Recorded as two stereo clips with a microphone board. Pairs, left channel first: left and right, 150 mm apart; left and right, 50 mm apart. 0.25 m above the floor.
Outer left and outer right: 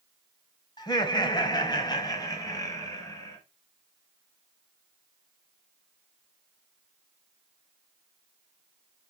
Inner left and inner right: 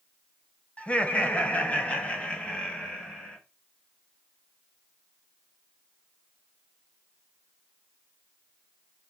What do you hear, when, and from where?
0.8 s laughter: 25° left (ahead or behind), 1.0 m; by 3.4 s 20° left (ahead or behind), 2.5 m